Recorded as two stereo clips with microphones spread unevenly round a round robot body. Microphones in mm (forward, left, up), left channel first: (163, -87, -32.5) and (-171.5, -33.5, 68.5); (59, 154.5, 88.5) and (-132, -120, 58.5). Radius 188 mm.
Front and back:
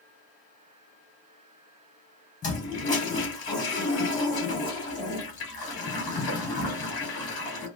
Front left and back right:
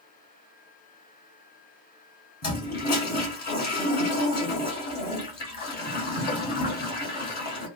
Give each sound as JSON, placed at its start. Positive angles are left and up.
{"t": 2.4, "sound": "a toilet flushing", "azimuth_deg": 15, "distance_m": 1.2}